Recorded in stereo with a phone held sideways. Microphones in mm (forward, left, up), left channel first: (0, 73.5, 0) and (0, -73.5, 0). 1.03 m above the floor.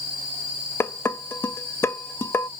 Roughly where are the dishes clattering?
Centre.